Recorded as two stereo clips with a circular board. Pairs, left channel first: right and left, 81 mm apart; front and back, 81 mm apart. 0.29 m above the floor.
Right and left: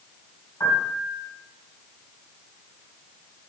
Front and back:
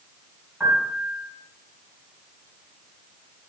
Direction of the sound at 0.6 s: 110° right.